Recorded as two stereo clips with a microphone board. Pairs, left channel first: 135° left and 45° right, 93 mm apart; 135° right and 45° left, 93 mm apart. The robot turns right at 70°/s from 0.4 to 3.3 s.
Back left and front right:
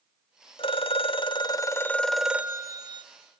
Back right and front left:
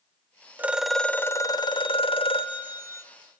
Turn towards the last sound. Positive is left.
turn(degrees=-55)